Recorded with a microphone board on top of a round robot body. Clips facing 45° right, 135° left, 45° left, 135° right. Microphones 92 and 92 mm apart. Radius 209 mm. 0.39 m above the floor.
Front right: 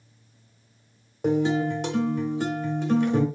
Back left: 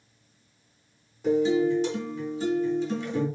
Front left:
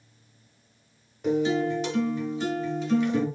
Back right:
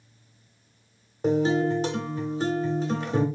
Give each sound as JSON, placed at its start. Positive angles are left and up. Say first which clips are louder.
{"t": 1.2, "sound": "a guitar", "louder": "back left 1 dB, back right 2 dB", "azimuth_deg": -80, "distance_m": 1.2}